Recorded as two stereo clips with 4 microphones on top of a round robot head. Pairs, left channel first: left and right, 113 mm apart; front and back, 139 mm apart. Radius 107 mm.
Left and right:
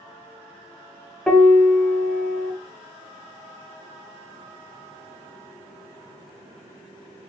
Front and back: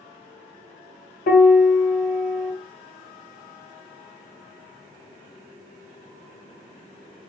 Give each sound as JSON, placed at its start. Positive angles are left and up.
{"t": 1.3, "sound": "a piano", "azimuth_deg": 5, "distance_m": 1.8}